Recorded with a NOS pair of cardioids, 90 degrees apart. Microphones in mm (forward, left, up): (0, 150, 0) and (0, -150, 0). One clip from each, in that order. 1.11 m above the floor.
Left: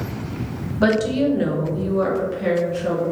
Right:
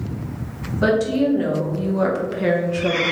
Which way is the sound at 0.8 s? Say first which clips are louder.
Even; 25° left.